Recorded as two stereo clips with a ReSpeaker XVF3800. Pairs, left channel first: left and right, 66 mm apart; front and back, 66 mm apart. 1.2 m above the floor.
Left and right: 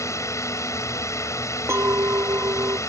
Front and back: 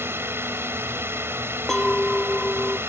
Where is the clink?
80° right.